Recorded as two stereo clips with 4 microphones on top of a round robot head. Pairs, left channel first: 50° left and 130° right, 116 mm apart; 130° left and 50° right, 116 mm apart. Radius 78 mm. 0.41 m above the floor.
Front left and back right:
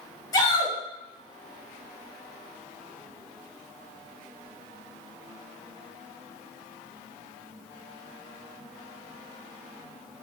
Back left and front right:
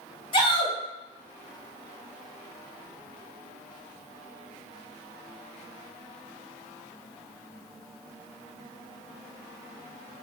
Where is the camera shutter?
I don't hear a camera shutter.